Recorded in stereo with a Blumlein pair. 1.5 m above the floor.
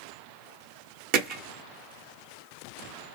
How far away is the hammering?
About 0.7 m.